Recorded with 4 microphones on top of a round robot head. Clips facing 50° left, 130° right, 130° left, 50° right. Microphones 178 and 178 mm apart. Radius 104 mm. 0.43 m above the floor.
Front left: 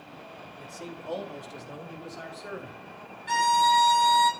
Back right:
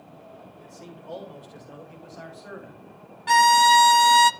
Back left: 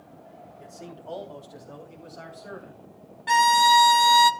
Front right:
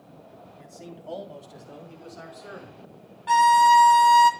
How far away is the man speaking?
About 3.5 m.